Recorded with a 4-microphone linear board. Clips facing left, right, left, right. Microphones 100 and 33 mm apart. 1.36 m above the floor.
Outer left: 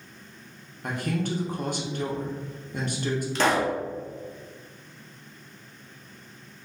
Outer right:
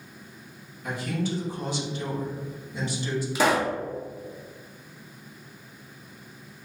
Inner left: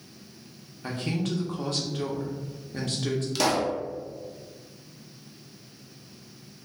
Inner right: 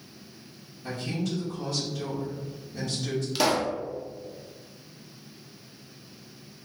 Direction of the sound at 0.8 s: 55° left (ahead or behind).